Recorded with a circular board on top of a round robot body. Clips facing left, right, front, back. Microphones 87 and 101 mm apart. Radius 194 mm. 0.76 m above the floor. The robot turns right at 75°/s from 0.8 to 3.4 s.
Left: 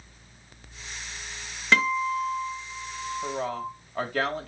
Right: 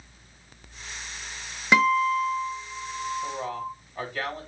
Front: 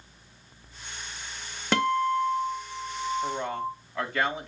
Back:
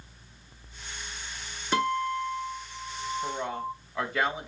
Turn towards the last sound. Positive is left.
turn(degrees=95)